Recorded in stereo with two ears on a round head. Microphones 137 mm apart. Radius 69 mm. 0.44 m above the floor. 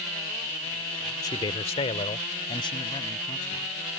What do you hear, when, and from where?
1.2 s a man speaking: 25° left (ahead or behind); by 3.7 s 30° left (ahead or behind)